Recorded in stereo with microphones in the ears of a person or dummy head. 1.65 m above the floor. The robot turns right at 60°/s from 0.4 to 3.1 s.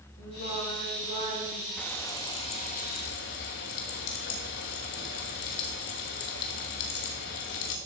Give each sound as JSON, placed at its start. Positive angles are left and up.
{"t": 0.2, "sound": "singing", "azimuth_deg": 80, "distance_m": 7.5}
{"t": 1.8, "sound": "frying", "azimuth_deg": 5, "distance_m": 1.3}